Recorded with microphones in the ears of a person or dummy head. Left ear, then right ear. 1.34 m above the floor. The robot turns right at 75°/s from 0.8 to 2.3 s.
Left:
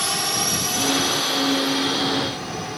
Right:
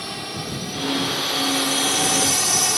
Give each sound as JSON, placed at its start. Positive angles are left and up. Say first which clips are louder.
{"t": 0.0, "sound": "a drone", "louder": "left 7 dB", "azimuth_deg": 135}